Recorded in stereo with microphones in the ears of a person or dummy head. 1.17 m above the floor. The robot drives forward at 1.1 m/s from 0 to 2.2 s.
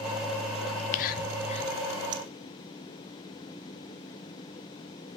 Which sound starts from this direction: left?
Whispering, at 0.7 s.